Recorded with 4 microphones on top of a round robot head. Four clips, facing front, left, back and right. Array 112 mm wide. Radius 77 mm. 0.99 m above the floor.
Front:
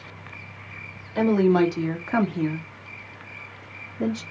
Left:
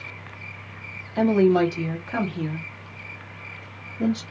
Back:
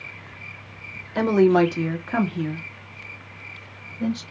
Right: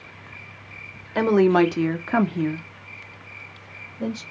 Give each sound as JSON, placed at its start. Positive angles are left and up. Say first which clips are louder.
{"t": 1.1, "sound": "a woman speaking", "louder": "right 1 dB, back 2 dB", "azimuth_deg": -105, "distance_m": 1.2}